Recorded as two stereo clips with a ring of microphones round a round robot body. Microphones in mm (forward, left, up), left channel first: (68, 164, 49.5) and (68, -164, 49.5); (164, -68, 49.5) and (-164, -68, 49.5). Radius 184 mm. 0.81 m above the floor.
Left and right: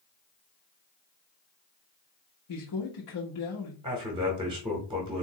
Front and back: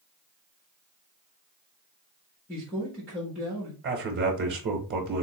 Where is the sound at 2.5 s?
85° left, 1.1 m.